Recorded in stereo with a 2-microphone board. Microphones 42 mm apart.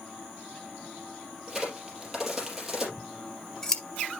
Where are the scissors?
15° left (ahead or behind), 1.2 m.